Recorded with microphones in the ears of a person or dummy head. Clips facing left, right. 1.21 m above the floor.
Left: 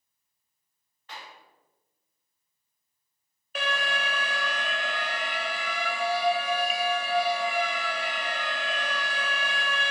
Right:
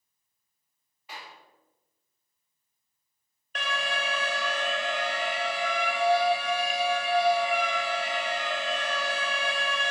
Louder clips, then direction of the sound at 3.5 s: Left 1 dB; 10° left (ahead or behind).